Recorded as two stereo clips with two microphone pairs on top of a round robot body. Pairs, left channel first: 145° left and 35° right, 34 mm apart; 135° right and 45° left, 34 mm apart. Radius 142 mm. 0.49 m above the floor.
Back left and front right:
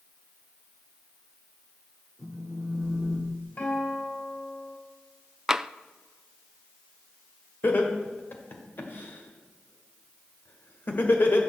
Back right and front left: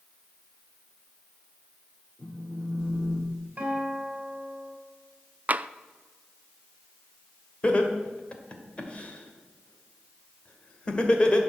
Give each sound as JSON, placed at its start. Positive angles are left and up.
{"t": 2.2, "sound": "a phone buzzing", "azimuth_deg": -90, "distance_m": 2.5}
{"t": 3.6, "sound": "a guitar", "azimuth_deg": 100, "distance_m": 4.0}
{"t": 5.5, "sound": "tapping", "azimuth_deg": 10, "distance_m": 0.5}
{"t": 7.6, "sound": "laughter", "azimuth_deg": 170, "distance_m": 2.0}